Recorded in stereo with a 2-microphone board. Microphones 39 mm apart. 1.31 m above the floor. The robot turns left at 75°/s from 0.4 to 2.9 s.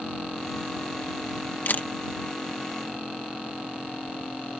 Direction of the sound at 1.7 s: 60° left (ahead or behind).